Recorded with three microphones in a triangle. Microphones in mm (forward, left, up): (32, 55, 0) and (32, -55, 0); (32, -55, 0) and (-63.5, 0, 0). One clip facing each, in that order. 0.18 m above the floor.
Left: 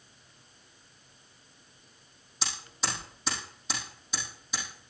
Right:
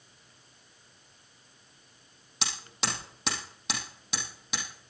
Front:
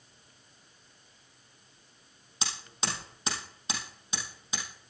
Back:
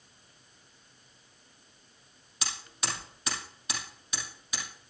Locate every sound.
2.4 s hammering: 95° right, 4.5 m